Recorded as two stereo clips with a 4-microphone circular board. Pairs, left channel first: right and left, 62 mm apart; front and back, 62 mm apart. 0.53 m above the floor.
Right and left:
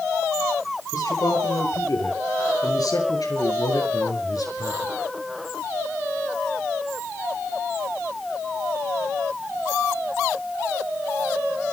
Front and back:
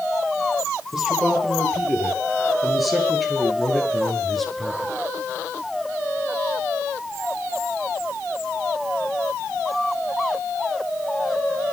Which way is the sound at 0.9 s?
95° right.